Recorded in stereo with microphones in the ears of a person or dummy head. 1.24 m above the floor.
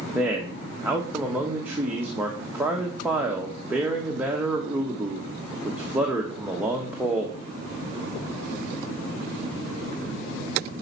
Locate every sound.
0.1 s a man speaking: 5° right (ahead or behind), 1.4 m